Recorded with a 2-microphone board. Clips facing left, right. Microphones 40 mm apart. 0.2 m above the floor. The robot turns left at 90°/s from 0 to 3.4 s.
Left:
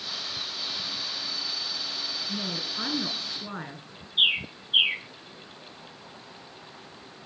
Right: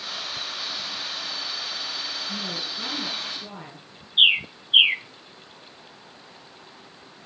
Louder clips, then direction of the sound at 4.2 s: Right 5 dB; 35° right (ahead or behind).